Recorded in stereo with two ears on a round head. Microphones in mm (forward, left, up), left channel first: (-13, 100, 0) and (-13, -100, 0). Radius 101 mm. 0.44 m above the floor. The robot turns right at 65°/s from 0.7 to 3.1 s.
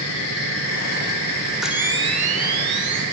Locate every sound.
1.6 s a camera shutter: straight behind, 0.8 m; by 3.0 s 85° right, 0.8 m